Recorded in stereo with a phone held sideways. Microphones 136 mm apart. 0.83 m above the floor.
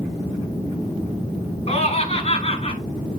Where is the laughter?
45° left (ahead or behind), 7.5 m.